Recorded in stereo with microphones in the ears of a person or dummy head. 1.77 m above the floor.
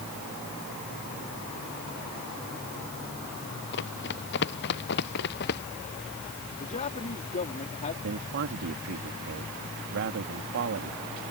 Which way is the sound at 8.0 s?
60° right (ahead or behind).